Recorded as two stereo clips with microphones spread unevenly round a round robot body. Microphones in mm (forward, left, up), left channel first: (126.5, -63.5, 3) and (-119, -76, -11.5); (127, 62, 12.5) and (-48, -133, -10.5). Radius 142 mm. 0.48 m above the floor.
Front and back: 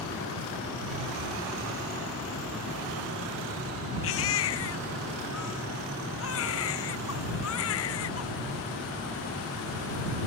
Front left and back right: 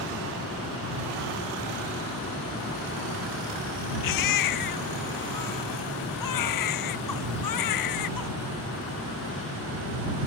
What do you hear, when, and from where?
4.0 s a baby crying: 50° left